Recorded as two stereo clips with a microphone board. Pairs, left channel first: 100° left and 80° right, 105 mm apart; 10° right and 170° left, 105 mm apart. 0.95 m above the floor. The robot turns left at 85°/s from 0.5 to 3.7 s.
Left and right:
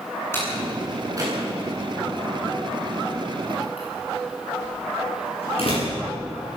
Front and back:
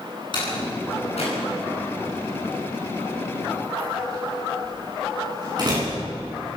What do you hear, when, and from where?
0.3 s a door slam: 35° left, 10 m; by 6.0 s 120° left, 10 m